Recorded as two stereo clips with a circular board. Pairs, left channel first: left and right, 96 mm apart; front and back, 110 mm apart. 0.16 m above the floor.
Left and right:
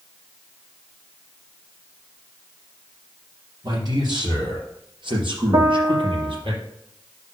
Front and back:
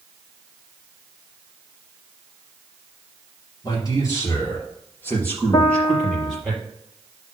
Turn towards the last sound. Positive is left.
turn(degrees=-45)